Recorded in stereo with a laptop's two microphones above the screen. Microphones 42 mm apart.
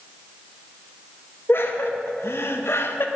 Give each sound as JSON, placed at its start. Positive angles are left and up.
{"t": 1.5, "sound": "laughter", "side_deg": 60, "distance_m": 1.4}